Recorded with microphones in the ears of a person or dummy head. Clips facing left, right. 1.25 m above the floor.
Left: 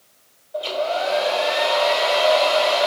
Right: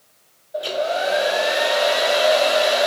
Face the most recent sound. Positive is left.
turn(degrees=-20)  # may be behind; listen again after turning